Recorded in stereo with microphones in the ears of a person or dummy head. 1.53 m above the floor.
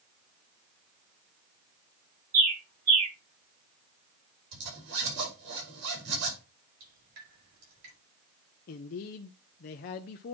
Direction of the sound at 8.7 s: 50° left (ahead or behind).